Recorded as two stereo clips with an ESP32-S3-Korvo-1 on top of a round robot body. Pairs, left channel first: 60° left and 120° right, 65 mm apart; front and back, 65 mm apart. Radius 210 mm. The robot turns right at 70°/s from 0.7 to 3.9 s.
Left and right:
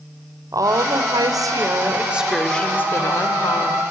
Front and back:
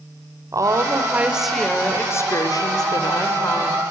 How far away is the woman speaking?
About 2.5 m.